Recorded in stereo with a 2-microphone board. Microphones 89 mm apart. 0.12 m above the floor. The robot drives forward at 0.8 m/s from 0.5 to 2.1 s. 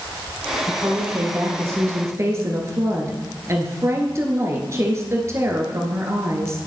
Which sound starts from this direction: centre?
A woman speaking, at 0.7 s.